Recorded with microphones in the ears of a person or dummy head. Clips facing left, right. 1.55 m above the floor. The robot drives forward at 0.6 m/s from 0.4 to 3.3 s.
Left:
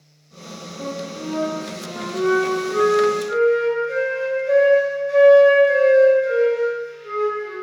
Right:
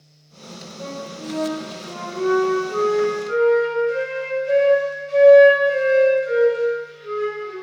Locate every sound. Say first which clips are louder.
0.8 s a flute: left 3 dB; 60° left (ahead or behind), 0.7 m; by 7.5 s 25° left (ahead or behind), 1.4 m